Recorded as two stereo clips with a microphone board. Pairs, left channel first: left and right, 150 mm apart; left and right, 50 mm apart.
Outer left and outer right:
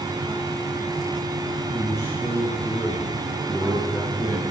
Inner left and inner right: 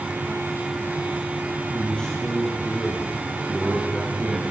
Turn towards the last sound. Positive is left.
turn(degrees=5)  # may be behind; listen again after turning